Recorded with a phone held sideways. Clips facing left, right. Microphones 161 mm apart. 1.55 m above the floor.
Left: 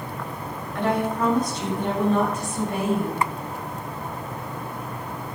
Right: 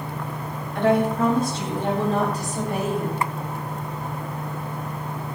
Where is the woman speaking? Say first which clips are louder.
Right 4 dB; 25° right (ahead or behind), 7.5 m; by 3.2 s 45° right (ahead or behind), 7.5 m.